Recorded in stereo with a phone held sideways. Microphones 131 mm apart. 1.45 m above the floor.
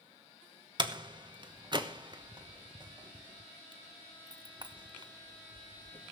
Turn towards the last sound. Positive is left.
turn(degrees=-35)  # may be behind; listen again after turning